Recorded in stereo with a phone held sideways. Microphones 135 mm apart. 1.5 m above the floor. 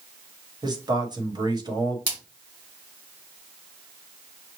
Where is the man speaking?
30° right (ahead or behind), 1.1 m.